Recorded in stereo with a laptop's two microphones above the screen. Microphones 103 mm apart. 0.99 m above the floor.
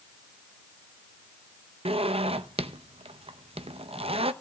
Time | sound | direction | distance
1.9 | a zipper | 70° right (ahead or behind) | 0.6 m